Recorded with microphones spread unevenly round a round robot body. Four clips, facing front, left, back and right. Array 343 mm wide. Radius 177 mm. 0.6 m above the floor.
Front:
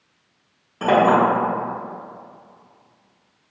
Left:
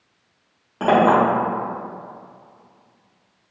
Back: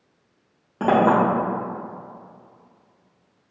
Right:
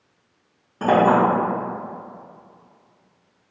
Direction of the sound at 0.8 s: 175° left.